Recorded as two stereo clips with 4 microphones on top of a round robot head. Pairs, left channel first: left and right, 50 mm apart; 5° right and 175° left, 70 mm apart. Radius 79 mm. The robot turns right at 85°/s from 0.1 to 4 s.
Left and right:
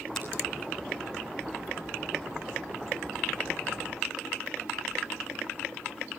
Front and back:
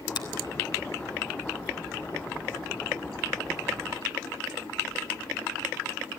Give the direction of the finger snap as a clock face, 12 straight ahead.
12 o'clock.